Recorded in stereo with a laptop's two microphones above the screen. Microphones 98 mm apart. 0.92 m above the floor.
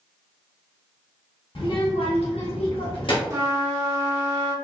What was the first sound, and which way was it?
A child speaking, 65° left (ahead or behind).